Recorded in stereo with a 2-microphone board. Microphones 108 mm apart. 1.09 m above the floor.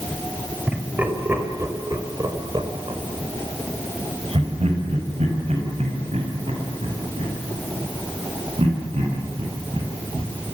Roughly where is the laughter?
Centre.